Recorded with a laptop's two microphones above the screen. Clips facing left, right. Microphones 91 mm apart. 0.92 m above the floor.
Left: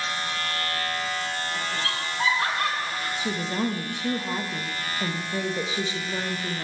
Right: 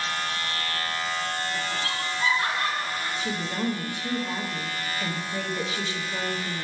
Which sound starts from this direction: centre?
A woman speaking, at 3.2 s.